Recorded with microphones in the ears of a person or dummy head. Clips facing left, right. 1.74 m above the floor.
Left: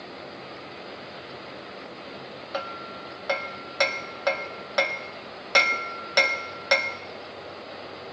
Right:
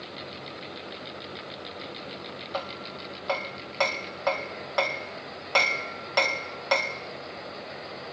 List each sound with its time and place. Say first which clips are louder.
2.5 s hammering: left 1 dB; 20° left (ahead or behind), 0.8 m